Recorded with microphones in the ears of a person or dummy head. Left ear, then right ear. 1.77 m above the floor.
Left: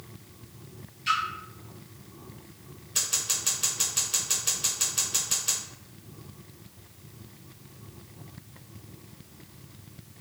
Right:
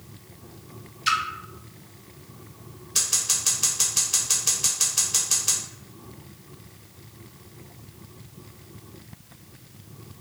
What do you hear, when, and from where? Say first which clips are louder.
1.1 s a splash: right 3 dB; 35° right (ahead or behind), 0.7 m
3.0 s scissors: right 4 dB; 15° right (ahead or behind), 1.2 m